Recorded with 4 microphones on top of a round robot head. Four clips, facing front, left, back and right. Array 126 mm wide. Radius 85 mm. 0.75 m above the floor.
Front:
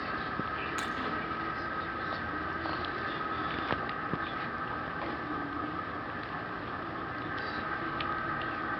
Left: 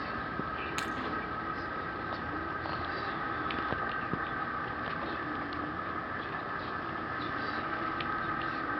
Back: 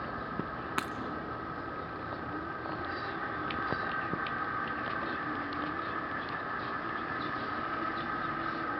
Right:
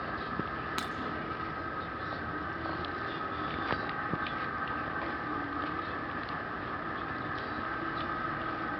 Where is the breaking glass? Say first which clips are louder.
Left 1 dB, back 4 dB; 160° right, 1.1 m.